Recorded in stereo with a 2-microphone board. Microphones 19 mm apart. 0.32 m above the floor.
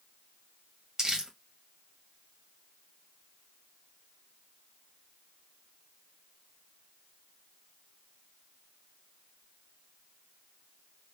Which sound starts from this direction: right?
Crumpling, at 1.0 s.